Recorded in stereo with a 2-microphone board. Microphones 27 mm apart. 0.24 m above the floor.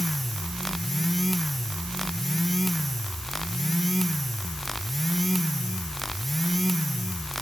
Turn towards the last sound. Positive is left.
No sound to turn to.